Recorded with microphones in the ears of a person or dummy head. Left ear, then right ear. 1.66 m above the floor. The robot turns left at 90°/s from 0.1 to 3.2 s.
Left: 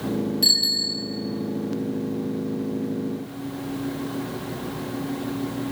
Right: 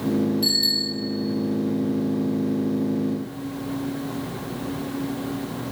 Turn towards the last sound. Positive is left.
turn(degrees=130)